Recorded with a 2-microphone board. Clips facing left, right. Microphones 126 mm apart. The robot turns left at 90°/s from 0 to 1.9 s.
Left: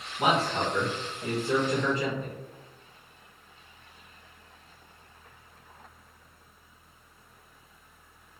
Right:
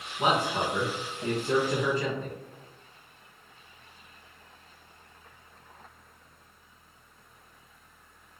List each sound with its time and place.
0.2 s a man speaking: 25° left, 1.9 m; by 2.3 s 130° right, 1.9 m